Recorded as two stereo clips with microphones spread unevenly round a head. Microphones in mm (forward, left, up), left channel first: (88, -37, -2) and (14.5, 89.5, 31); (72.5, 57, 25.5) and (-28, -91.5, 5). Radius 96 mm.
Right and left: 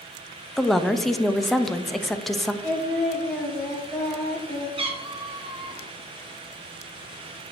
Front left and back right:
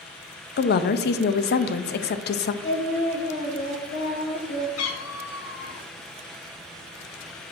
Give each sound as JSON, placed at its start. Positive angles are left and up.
{"t": 0.6, "sound": "a woman speaking", "azimuth_deg": 25, "distance_m": 0.6}
{"t": 2.6, "sound": "singing", "azimuth_deg": 25, "distance_m": 2.5}
{"t": 4.8, "sound": "a cat meowing", "azimuth_deg": 70, "distance_m": 1.1}